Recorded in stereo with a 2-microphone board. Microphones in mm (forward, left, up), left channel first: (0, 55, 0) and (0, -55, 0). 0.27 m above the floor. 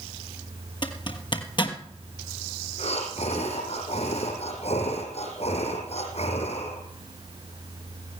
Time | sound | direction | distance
0.8 | a zipper | 45° left (ahead or behind) | 1.4 m
2.8 | breathing | 75° left (ahead or behind) | 3.5 m